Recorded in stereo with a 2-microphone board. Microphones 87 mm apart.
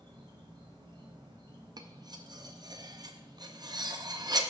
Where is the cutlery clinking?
50° right (ahead or behind), 0.5 m.